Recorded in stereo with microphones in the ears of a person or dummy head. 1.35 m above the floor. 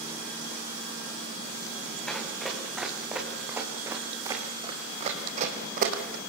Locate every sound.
2.1 s running footsteps: 5° left (ahead or behind), 7 m; by 6.2 s 55° right (ahead or behind), 4.5 m